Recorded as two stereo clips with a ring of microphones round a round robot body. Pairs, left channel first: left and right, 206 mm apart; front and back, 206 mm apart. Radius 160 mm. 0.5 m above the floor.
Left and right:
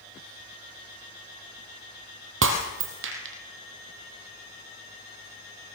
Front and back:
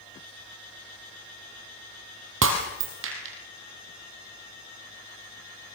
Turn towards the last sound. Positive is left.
turn(degrees=-135)